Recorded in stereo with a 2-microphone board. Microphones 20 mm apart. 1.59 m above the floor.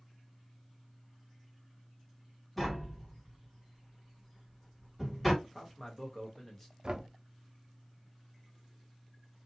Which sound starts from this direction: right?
Knocking, at 6.8 s.